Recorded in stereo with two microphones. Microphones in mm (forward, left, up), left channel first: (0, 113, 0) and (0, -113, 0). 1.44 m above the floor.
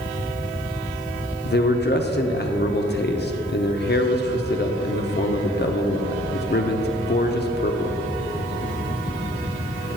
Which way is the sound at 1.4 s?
45° left (ahead or behind).